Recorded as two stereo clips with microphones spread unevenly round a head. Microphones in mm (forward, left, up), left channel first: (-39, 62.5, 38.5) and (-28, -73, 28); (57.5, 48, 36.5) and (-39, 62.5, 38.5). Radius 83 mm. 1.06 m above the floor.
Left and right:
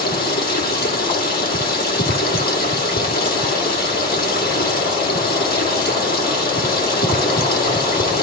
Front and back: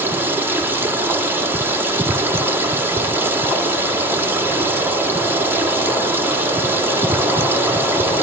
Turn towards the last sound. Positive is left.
turn(degrees=105)